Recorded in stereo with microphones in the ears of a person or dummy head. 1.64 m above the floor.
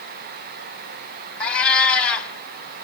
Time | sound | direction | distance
1.4 | a cat meowing | 5° left (ahead or behind) | 3 m